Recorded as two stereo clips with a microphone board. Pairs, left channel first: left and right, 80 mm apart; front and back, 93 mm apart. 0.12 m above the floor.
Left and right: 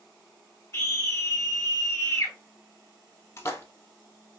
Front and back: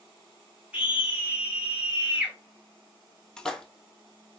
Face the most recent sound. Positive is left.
turn(degrees=75)